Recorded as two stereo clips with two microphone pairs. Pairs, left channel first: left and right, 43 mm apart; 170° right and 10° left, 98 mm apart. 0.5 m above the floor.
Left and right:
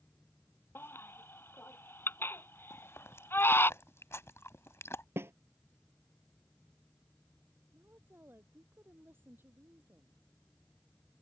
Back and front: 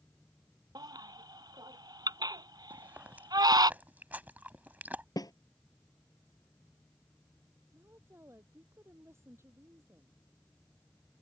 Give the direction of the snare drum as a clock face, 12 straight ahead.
4 o'clock.